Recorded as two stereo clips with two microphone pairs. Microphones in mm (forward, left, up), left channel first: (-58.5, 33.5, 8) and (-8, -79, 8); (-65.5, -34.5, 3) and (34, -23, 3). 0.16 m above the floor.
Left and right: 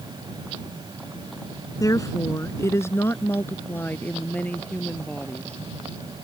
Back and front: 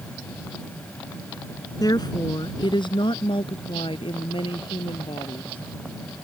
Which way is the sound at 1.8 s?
165° left.